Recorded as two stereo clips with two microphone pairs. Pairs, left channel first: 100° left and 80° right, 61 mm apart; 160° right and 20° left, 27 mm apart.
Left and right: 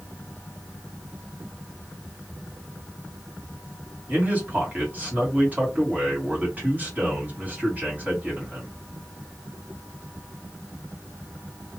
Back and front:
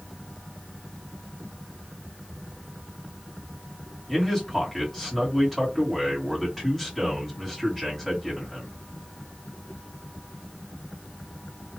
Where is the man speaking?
80° right, 1.7 m.